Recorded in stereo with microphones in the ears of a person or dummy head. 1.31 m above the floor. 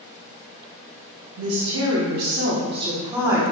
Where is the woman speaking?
75° right (ahead or behind), 0.9 m; by 3.4 s 5° right (ahead or behind), 1.1 m.